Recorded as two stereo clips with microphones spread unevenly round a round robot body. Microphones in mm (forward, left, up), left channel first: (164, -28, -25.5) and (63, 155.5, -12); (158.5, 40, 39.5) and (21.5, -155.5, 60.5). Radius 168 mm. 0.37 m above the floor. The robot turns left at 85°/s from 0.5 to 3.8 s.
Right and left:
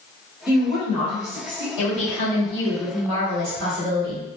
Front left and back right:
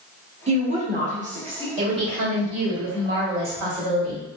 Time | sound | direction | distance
0.5 | a woman speaking | 85° right | 1.2 m
1.8 | a woman speaking | 65° right | 1.9 m